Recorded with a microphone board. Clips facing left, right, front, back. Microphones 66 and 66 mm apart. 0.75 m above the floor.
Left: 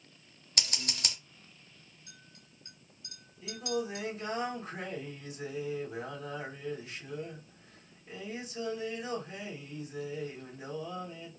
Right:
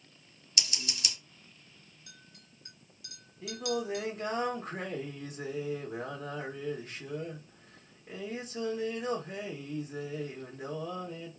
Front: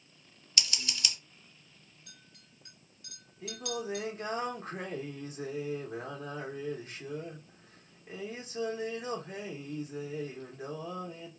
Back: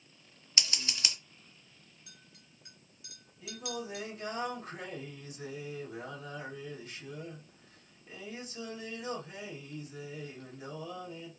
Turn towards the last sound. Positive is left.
turn(degrees=-55)